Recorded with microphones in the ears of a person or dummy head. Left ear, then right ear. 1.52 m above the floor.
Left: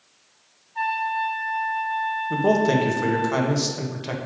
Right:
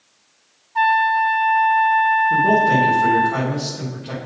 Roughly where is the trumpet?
Right.